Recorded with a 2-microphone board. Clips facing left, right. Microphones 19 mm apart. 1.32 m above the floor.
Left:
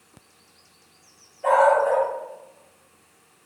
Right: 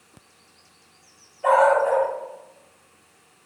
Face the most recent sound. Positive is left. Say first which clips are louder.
# even
turn(degrees=0)  # may be behind; listen again after turning